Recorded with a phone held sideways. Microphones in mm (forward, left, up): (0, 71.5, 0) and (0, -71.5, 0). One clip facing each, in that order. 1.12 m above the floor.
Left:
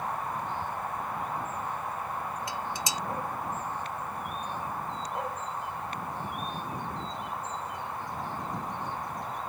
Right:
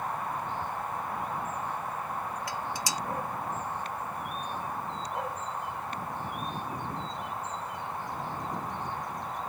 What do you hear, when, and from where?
2.5 s dishes clattering: 25° left (ahead or behind)